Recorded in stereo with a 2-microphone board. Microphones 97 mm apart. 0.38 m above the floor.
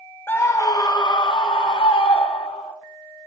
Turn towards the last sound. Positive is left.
turn(degrees=70)  # may be behind; listen again after turning